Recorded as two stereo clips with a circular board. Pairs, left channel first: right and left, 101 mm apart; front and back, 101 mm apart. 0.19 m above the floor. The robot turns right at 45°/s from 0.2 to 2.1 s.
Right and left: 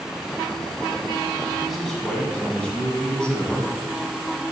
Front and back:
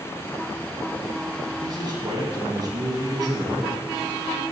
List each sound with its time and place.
1.6 s a man speaking: 170° left, 1.4 m; by 3.7 s 165° right, 1.4 m